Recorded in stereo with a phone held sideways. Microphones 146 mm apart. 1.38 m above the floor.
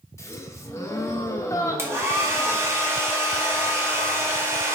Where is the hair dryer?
20° right (ahead or behind), 0.9 m.